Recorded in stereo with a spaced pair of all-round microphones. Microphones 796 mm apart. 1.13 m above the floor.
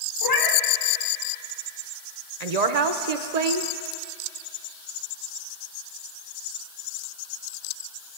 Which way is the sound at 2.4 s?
55° right (ahead or behind).